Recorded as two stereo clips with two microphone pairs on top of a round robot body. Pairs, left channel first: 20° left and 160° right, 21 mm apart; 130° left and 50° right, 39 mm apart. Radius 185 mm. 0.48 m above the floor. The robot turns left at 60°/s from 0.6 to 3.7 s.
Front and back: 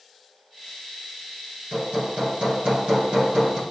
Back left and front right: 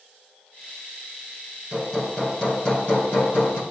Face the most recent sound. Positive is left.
turn(degrees=120)